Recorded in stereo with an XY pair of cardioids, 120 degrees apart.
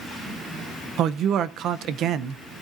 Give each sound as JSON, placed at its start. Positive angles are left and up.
{"t": 1.0, "sound": "a man speaking", "azimuth_deg": -65, "distance_m": 0.9}